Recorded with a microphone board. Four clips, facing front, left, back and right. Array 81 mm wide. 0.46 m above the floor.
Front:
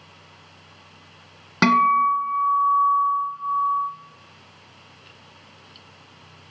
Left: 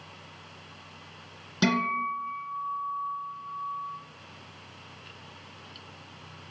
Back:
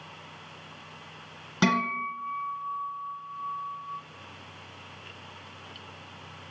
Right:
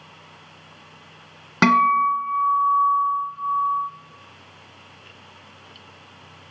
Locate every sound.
1.6 s a guitar: 60° right, 1.4 m